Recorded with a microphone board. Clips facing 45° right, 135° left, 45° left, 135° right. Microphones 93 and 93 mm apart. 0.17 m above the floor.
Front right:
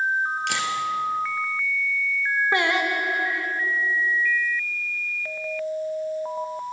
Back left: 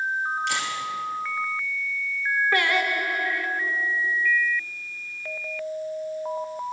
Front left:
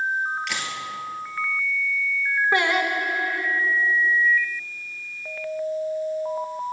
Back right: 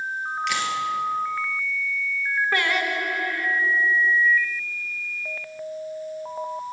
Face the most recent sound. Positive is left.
turn(degrees=0)